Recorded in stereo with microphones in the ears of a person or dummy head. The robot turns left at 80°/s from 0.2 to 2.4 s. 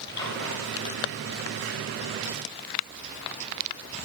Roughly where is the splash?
Ahead.